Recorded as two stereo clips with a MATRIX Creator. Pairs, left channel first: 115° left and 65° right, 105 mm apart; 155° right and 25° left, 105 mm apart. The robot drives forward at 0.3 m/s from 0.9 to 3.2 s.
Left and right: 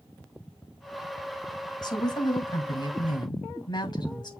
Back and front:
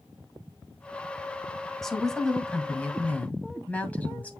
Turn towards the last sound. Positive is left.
turn(degrees=135)